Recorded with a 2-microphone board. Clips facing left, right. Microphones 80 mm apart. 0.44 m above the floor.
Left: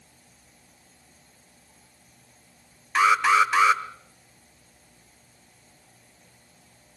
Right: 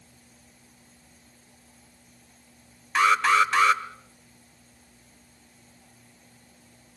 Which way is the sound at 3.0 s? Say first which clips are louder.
Left 1 dB; 5° left (ahead or behind).